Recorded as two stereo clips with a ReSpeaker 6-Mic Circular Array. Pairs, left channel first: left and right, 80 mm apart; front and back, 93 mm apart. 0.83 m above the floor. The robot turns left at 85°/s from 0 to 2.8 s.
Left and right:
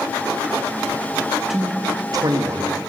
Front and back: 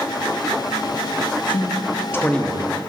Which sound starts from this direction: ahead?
A man speaking, at 1.5 s.